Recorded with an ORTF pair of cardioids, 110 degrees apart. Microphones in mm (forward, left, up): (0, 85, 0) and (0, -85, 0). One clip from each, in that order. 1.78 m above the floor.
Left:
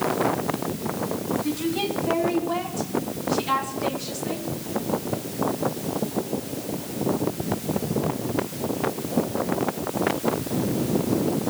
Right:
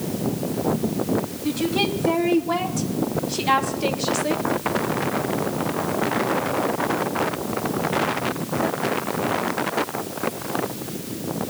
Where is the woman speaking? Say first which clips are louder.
Right 3 dB; 30° right, 3 m; by 4.5 s 60° right, 1.8 m.